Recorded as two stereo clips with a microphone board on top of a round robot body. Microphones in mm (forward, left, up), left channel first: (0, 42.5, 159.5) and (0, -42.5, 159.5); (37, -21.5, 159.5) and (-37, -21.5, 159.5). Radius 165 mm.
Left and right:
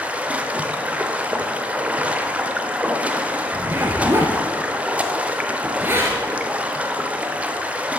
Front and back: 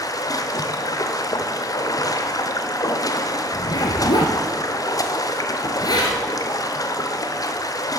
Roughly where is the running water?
Ahead.